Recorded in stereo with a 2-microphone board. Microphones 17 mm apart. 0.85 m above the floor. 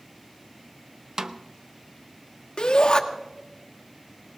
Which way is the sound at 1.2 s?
35° right (ahead or behind).